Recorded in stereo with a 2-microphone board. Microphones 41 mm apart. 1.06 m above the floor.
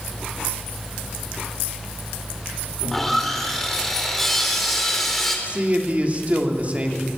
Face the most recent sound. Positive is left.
turn(degrees=-35)  # may be behind; listen again after turning